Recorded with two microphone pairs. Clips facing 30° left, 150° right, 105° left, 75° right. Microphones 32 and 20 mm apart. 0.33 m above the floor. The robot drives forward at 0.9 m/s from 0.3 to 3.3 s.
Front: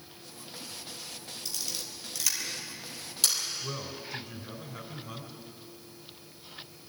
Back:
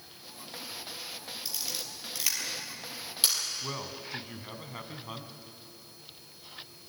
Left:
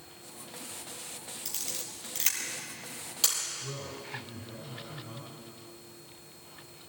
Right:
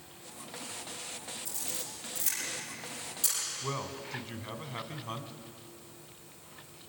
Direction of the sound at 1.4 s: 135° left.